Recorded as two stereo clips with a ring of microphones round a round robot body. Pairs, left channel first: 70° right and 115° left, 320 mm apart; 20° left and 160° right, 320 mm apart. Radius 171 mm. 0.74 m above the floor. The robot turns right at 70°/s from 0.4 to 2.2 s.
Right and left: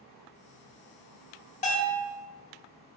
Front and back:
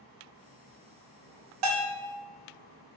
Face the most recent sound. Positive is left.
turn(degrees=-95)